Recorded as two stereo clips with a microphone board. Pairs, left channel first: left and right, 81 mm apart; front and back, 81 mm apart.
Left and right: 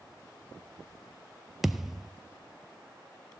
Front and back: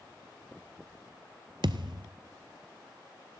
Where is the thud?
175° right, 0.6 m.